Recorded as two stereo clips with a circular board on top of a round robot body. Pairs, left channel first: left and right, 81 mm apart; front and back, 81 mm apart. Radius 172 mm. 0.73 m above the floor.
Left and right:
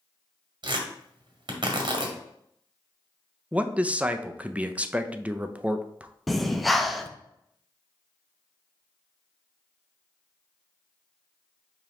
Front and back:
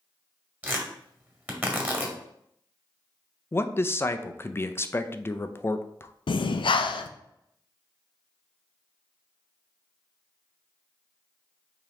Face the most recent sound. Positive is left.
turn(degrees=0)